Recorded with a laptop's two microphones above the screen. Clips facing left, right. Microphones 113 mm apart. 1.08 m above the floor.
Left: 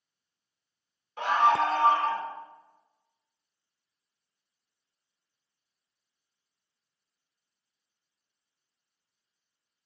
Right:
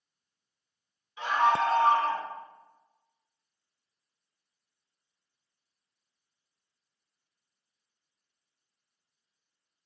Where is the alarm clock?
I don't hear an alarm clock.